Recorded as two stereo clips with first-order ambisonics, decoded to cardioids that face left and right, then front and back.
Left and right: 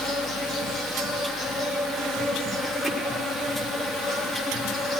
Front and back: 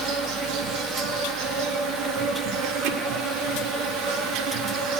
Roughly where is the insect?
Behind.